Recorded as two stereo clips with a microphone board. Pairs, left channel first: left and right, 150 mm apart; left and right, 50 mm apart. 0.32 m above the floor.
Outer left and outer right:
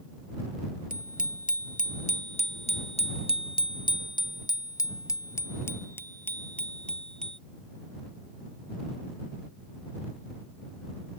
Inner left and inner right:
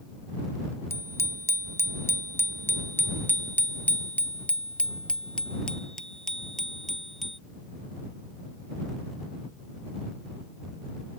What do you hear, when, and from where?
0.9 s a bicycle bell: 65° left (ahead or behind); by 7.4 s 5° left (ahead or behind)